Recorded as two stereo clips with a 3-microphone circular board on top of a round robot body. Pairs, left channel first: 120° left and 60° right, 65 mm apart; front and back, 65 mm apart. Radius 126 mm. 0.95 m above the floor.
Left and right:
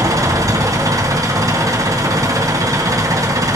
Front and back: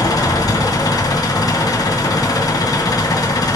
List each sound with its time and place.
0.0 s an engine running: 25° right, 2 m